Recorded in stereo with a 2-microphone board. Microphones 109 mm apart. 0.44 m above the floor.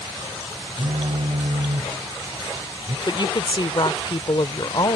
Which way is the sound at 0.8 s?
65° right (ahead or behind).